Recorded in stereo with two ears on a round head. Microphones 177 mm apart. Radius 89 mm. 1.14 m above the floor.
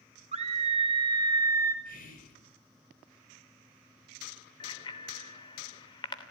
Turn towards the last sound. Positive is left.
turn(degrees=25)  # may be behind; listen again after turning